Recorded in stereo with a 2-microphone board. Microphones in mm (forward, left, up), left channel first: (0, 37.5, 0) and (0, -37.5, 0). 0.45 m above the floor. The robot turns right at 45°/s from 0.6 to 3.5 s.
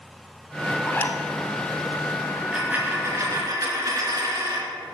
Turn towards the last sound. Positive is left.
turn(degrees=-125)